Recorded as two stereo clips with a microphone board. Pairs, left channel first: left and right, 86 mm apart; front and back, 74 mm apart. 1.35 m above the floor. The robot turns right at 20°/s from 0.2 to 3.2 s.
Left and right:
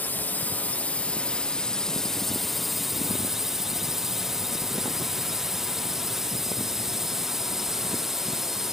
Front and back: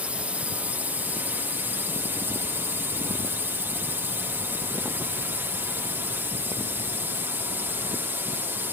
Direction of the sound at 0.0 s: 130° left.